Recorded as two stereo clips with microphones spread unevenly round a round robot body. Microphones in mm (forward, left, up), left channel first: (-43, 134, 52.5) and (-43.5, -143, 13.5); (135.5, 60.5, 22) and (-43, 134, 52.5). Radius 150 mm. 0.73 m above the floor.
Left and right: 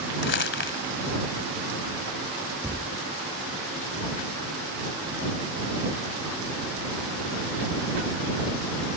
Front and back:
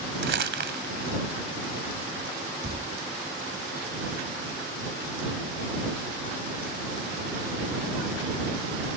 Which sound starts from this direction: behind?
A thud, at 2.6 s.